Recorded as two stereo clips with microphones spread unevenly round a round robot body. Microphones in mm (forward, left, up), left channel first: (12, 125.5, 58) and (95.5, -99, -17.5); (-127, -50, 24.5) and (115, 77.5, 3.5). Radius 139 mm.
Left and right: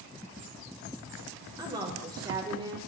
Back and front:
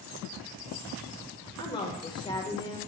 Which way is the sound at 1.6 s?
85° right.